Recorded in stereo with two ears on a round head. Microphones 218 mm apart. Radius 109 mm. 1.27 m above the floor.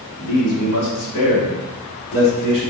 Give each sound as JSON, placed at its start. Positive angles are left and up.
{"t": 0.2, "sound": "a man speaking", "side_deg": 80, "distance_m": 2.0}